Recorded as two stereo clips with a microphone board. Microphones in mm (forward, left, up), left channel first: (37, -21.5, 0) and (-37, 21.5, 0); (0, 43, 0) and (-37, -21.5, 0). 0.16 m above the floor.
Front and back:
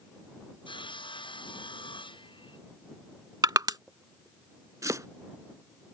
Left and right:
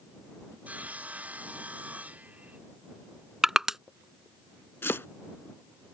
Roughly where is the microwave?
I don't hear a microwave.